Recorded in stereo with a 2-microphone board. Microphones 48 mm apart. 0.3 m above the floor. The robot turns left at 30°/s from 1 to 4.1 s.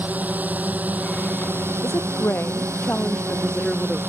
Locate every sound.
0.0 s a drone: 40° right; by 4.1 s 130° right
1.8 s a woman speaking: 65° left; by 4.0 s 5° right